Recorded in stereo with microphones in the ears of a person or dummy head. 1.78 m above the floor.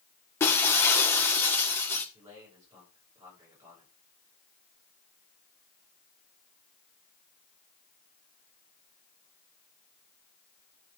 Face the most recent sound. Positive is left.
turn(degrees=-20)  # may be behind; listen again after turning